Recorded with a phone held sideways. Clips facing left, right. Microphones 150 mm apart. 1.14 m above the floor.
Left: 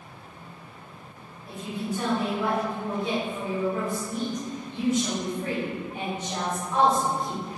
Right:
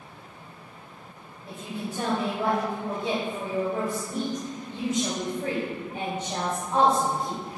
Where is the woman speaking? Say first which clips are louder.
Left 3 dB; 35° right (ahead or behind), 2.5 m.